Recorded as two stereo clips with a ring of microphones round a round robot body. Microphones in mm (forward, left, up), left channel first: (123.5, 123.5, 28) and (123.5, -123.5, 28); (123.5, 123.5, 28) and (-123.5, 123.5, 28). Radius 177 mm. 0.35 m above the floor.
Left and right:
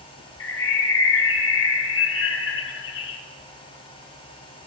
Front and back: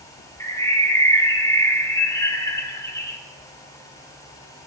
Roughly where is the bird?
Left.